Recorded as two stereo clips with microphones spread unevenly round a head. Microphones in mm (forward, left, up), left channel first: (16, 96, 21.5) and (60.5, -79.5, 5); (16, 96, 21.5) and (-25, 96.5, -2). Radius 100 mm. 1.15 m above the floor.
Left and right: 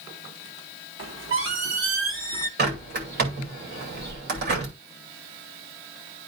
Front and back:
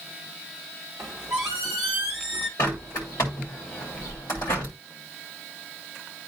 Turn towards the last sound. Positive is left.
turn(degrees=-50)